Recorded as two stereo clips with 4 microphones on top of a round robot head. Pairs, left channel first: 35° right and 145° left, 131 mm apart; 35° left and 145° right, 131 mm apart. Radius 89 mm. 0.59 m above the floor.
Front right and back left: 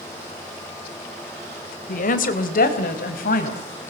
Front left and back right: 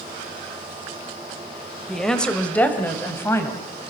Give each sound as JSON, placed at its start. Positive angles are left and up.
{"t": 1.9, "sound": "a woman speaking", "azimuth_deg": -50, "distance_m": 3.0}